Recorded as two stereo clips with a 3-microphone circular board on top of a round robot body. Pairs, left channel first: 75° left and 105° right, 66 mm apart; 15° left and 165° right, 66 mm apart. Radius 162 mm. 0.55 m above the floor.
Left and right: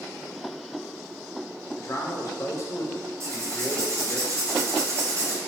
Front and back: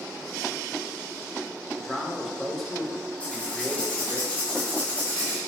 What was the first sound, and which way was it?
A man speaking, 100° left.